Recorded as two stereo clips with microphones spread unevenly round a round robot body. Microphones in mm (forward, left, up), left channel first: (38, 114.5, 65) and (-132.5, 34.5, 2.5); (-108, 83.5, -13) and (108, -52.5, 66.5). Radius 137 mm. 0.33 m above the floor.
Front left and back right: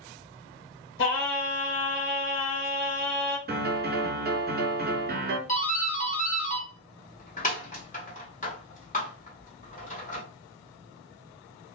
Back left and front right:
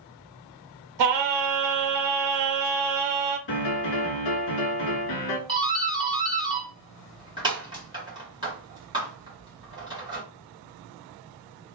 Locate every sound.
1.0 s singing: 10° right, 0.6 m
3.5 s a piano: 155° left, 0.7 m
5.5 s a doorbell: 60° left, 1.4 m